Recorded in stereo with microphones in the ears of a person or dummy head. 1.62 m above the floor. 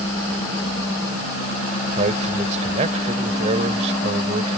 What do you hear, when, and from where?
2.0 s a man speaking: 40° right (ahead or behind)